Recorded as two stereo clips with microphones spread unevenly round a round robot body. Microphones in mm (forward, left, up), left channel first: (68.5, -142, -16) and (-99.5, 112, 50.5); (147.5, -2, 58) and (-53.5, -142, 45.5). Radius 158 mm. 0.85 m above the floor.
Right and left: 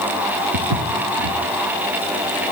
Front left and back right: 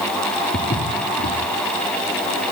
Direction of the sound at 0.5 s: 105° left.